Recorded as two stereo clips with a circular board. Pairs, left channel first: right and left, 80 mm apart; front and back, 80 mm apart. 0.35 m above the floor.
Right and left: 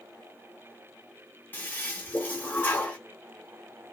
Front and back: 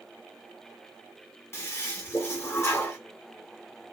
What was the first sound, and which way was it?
A toilet flushing, 40° right.